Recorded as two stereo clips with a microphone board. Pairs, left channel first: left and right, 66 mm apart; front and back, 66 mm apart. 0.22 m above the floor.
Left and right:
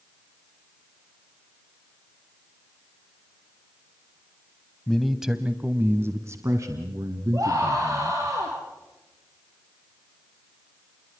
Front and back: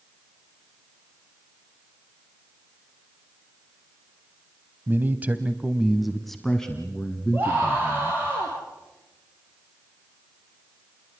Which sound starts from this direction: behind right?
A scream, at 7.3 s.